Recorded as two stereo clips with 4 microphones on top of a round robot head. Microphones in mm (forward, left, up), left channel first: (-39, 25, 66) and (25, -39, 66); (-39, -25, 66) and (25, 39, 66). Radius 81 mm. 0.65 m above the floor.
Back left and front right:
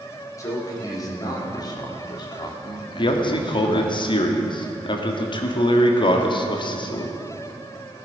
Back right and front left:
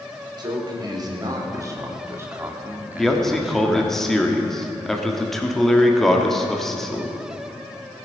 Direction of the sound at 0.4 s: 80° left.